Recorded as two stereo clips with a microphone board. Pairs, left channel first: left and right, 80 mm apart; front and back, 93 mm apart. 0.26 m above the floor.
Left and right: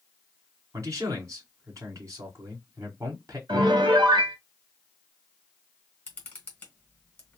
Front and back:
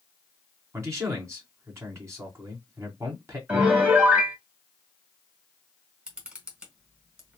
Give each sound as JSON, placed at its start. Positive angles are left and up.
{"t": 0.7, "sound": "a man speaking", "azimuth_deg": -130, "distance_m": 2.0}
{"t": 3.5, "sound": "a piano", "azimuth_deg": -110, "distance_m": 1.9}
{"t": 6.1, "sound": "a camera shutter", "azimuth_deg": 120, "distance_m": 1.5}